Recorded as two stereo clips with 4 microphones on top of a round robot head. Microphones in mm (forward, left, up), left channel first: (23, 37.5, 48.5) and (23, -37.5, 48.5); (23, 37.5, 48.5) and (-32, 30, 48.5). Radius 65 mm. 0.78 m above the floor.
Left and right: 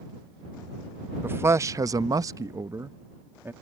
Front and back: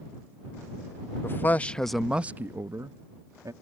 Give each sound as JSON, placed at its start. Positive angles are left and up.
{"t": 1.2, "sound": "a man speaking", "azimuth_deg": -30}